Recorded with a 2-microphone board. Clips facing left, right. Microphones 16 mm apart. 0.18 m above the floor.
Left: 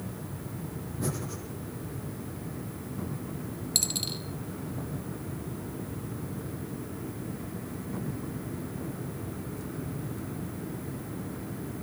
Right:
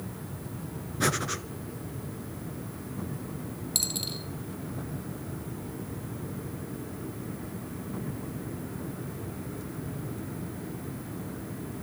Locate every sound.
1.0 s breathing: 65° right (ahead or behind), 1.3 m
3.8 s a dropped coin: 10° left (ahead or behind), 1.3 m